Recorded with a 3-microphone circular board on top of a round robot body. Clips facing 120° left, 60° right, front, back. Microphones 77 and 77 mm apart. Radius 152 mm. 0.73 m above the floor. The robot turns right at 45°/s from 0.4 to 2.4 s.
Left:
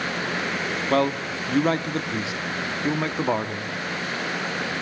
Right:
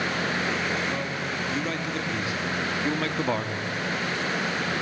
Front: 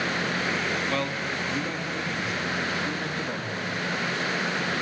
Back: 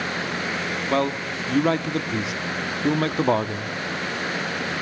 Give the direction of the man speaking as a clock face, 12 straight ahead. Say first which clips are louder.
Left 7 dB, back 5 dB; 8 o'clock.